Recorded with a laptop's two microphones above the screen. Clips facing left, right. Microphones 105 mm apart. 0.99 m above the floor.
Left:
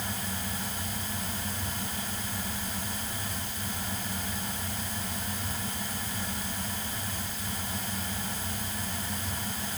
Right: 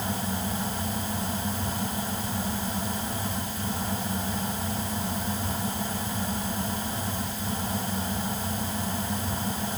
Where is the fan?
30° right (ahead or behind).